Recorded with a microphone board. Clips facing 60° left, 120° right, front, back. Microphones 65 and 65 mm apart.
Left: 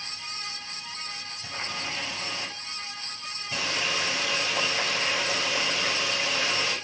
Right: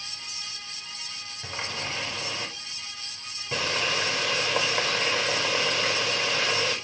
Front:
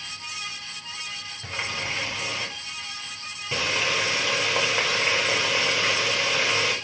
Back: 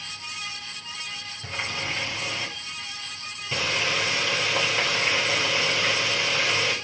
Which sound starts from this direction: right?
A running tap, at 1.4 s.